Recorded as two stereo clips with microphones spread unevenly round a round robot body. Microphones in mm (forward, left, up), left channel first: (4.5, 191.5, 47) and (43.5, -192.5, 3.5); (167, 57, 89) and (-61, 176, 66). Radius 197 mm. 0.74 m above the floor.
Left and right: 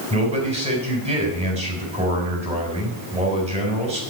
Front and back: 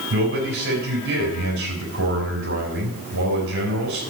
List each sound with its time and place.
0.1 s a man speaking: 160° right, 4.5 m